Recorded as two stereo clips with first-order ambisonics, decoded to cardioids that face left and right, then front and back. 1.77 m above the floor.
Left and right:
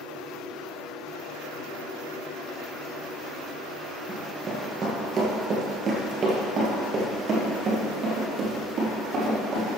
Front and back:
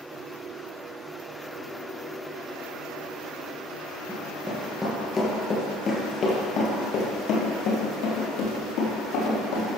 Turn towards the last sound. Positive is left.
turn(degrees=-25)